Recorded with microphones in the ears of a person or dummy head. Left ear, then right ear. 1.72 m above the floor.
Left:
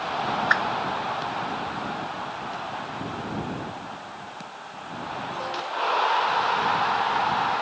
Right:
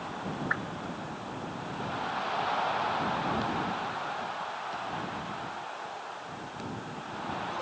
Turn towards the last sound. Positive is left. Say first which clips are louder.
# left 11 dB
turn(degrees=75)  # may be behind; listen again after turning